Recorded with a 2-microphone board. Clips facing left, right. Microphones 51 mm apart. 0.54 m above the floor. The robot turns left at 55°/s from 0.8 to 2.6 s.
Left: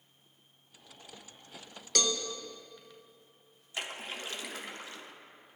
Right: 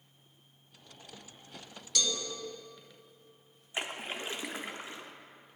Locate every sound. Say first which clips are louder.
1.9 s a cowbell: left 2 dB; 50° left (ahead or behind), 0.6 m; by 2.2 s 40° left (ahead or behind), 0.6 m
3.7 s a splash: right 2 dB; 25° right (ahead or behind), 0.6 m